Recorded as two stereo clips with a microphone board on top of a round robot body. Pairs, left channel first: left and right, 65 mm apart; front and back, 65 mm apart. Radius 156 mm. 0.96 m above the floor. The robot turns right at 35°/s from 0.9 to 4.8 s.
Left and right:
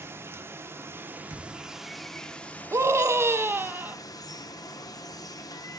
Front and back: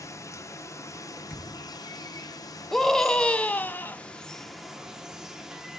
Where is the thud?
50° right, 0.7 m; by 1.8 s 35° right, 0.7 m.